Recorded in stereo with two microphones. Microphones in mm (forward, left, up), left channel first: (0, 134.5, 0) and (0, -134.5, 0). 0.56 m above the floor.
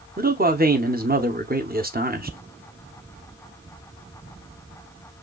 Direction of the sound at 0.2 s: 35° right (ahead or behind).